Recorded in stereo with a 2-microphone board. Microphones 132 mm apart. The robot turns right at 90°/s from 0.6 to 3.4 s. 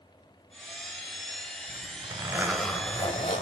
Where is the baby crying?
No baby crying in this recording.